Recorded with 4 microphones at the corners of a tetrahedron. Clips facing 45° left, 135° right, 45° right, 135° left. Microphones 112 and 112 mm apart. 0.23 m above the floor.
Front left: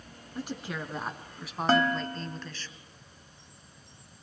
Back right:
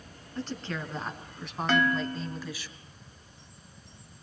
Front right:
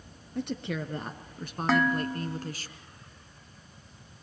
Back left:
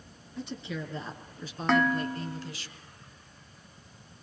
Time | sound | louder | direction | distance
0.3 | a woman speaking | back right 1 dB, front right 4 dB | 30° right | 3 m
1.7 | dishes clattering | front left 1 dB, even | 40° left | 1.0 m